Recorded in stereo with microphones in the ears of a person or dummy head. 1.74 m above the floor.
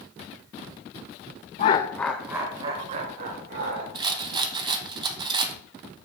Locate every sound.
1.6 s laughter: 35° left (ahead or behind), 0.6 m; by 3.9 s 55° right (ahead or behind), 1.6 m
4.0 s a rattle: 20° right (ahead or behind), 0.8 m